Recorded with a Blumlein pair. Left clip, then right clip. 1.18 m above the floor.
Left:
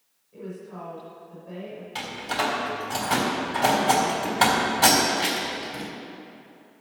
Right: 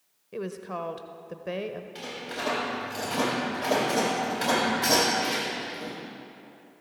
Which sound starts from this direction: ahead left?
A door slam, at 1.9 s.